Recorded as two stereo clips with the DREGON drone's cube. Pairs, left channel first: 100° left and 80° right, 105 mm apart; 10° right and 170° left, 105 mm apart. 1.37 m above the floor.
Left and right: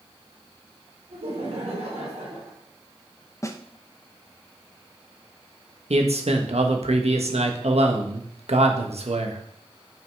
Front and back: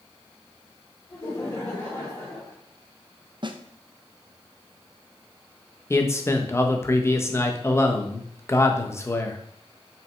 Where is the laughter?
70° right, 4 m; by 2.6 s 55° right, 3 m.